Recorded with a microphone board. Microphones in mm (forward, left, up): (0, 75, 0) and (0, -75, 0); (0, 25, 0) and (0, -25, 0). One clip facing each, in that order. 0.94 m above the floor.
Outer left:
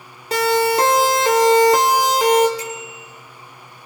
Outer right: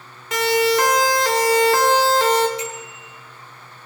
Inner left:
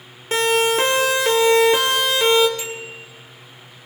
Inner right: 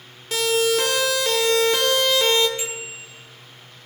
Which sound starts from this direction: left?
A siren, at 0.3 s.